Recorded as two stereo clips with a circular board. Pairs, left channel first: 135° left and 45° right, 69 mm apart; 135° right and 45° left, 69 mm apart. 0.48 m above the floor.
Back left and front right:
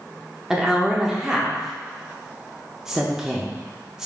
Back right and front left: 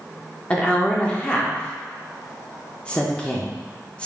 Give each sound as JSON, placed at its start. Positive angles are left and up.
{"t": 0.5, "sound": "a woman speaking", "azimuth_deg": -110, "distance_m": 0.7}